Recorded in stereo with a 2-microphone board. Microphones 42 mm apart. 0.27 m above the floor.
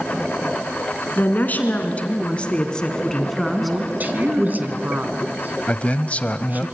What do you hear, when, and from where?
1.2 s a woman speaking: 45° left (ahead or behind), 3 m; by 4.6 s 15° right (ahead or behind), 2.5 m
3.6 s a woman speaking: 40° right (ahead or behind), 2.5 m
5.7 s a man speaking: 35° left (ahead or behind), 1.1 m